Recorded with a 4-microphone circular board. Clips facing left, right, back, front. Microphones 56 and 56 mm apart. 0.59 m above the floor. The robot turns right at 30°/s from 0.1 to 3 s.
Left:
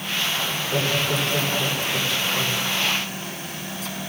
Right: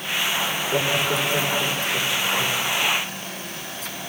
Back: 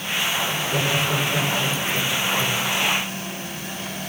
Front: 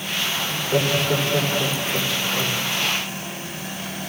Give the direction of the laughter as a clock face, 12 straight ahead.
1 o'clock.